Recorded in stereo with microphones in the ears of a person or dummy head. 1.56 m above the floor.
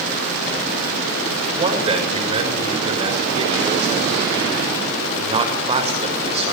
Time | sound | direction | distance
1.6 | a man speaking | 35° right (ahead or behind) | 6.5 m